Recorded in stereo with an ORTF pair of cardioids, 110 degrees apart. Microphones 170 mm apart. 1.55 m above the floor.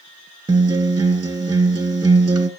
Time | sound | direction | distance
0.5 | a guitar | 30° right | 1.8 m